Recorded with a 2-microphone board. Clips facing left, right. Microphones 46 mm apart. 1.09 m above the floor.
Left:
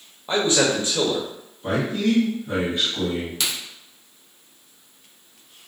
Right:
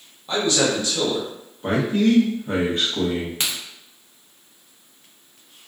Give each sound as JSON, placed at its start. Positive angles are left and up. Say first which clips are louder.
{"t": 0.3, "sound": "a man speaking", "louder": "left 1 dB", "side_deg": 25, "distance_m": 0.7}
{"t": 1.6, "sound": "a man speaking", "louder": "right 3 dB", "side_deg": -45, "distance_m": 0.8}
{"t": 3.4, "sound": "a crack", "louder": "even", "side_deg": -30, "distance_m": 0.7}